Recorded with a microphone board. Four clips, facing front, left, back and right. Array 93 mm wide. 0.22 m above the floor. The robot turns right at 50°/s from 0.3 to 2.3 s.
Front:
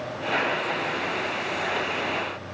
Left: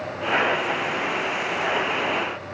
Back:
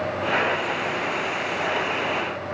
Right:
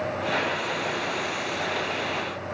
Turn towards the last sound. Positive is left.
No sound to turn to.